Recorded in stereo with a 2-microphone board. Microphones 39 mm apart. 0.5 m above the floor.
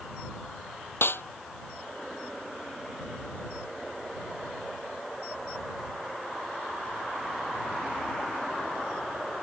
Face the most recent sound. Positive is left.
turn(degrees=75)  # may be behind; listen again after turning